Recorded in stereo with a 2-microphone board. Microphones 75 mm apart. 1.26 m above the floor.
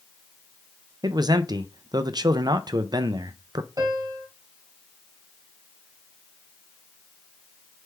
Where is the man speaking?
65° right (ahead or behind), 0.5 m.